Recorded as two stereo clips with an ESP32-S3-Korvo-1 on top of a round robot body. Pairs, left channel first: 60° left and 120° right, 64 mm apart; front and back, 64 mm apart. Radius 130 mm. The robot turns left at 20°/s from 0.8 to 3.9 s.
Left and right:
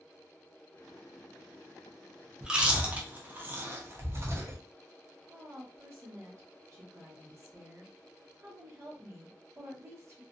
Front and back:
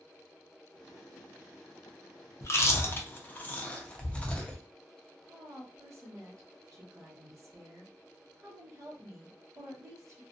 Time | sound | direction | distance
2.4 | chewing | 45° right | 0.7 m
5.3 | a woman speaking | 155° right | 1.2 m